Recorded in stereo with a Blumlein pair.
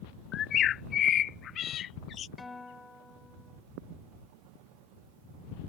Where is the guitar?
15° left.